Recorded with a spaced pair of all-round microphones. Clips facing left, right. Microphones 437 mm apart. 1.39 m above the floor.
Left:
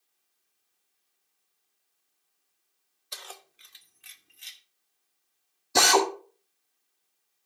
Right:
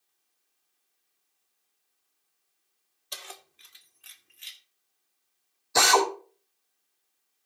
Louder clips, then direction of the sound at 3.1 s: Even; 50° right (ahead or behind).